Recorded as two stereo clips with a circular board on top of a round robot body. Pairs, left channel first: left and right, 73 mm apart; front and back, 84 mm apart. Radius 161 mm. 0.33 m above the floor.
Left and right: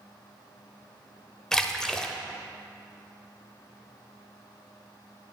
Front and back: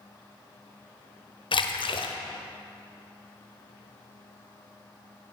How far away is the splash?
About 1.0 m.